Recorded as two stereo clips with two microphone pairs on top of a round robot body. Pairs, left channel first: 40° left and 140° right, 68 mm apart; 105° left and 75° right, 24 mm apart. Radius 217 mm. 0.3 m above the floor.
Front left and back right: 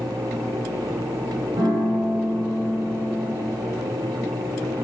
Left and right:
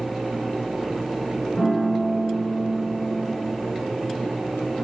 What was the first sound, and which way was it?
A piano, 160° right.